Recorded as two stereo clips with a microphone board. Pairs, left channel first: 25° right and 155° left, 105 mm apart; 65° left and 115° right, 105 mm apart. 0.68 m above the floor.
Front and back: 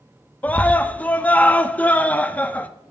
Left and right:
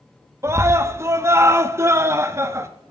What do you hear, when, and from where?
0.4 s a scream: 85° right, 0.7 m